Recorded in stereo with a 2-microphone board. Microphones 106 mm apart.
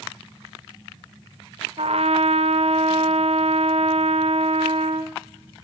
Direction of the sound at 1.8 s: 70° right (ahead or behind).